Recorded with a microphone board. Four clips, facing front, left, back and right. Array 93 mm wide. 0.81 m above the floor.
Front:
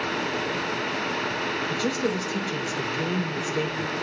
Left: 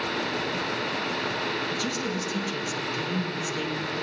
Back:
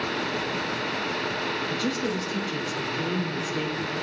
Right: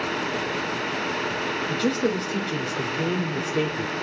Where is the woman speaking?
85° right, 1.2 m.